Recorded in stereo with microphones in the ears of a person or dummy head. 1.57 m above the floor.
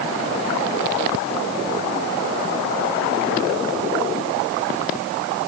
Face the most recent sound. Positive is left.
No sound to turn to.